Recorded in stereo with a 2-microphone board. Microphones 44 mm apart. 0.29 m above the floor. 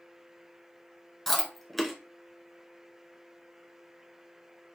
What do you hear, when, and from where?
1.3 s chewing: 5° left (ahead or behind), 1.1 m